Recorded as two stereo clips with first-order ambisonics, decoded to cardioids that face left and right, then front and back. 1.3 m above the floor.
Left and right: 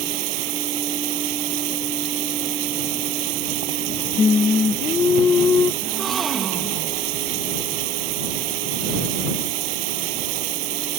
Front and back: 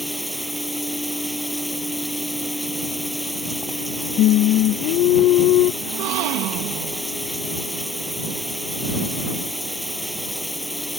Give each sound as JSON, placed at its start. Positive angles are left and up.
{"t": 0.0, "sound": "running water", "azimuth_deg": -90}
{"t": 4.2, "sound": "singing", "azimuth_deg": 25}
{"t": 5.8, "sound": "a gasp", "azimuth_deg": -165}